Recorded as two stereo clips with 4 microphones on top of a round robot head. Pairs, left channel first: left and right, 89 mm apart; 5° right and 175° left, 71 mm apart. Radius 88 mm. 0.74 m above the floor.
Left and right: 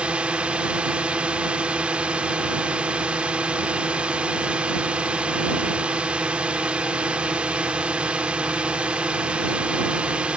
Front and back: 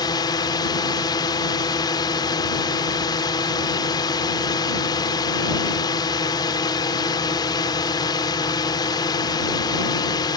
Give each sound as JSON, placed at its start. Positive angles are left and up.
{"t": 0.0, "sound": "a drone", "azimuth_deg": -10}